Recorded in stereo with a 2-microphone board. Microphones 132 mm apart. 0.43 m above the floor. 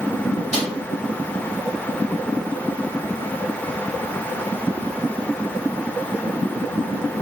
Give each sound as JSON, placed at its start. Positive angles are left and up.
{"t": 0.5, "sound": "a snare drum", "side_deg": -60, "distance_m": 1.8}